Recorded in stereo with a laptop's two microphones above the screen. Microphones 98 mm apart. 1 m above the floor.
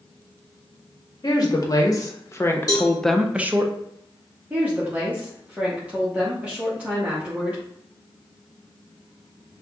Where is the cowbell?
40° left (ahead or behind), 1.2 m.